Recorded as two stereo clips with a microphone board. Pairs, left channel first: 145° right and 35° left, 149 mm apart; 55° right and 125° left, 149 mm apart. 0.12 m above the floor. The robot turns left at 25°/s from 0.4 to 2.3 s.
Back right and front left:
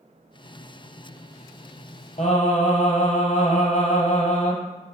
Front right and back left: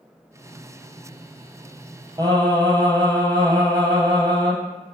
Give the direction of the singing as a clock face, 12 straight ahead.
6 o'clock.